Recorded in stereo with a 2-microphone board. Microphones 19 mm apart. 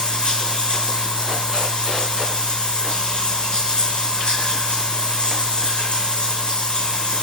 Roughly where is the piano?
No piano in this recording.